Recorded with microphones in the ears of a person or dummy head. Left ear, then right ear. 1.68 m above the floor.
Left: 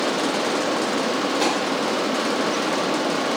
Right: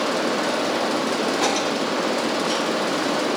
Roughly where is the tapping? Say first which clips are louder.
Even; left.